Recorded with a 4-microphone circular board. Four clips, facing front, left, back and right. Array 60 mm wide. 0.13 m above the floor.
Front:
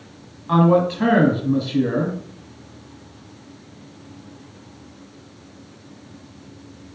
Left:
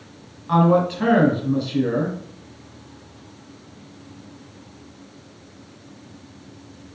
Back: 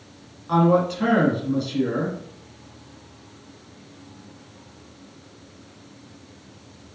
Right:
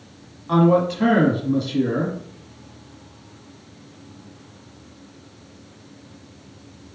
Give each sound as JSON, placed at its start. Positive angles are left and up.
{"t": 0.5, "sound": "a man speaking", "azimuth_deg": 20, "distance_m": 1.2}